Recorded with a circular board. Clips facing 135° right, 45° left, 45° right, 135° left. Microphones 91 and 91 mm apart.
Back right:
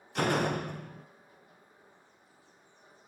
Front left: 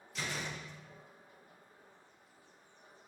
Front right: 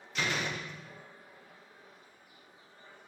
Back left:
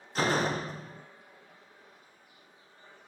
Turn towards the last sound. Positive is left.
turn(degrees=-170)